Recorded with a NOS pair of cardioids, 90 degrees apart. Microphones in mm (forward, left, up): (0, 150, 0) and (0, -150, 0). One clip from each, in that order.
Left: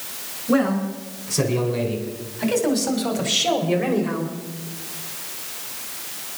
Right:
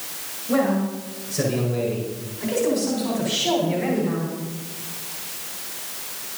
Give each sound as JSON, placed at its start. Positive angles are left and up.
{"t": 0.5, "sound": "a man speaking", "azimuth_deg": 65, "distance_m": 6.0}